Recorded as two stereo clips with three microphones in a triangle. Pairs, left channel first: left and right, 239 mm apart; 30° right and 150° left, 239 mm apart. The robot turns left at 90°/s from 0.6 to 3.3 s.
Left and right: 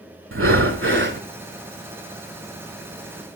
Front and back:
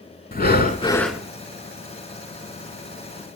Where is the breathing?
75° right, 0.7 m; by 1.2 s 130° right, 0.7 m.